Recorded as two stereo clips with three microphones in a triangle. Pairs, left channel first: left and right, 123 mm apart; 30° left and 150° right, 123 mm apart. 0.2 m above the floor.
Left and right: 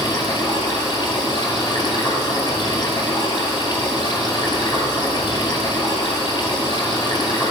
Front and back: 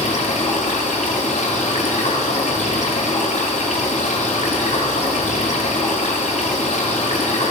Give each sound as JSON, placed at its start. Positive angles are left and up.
{"t": 0.0, "sound": "running water", "azimuth_deg": 35, "distance_m": 1.9}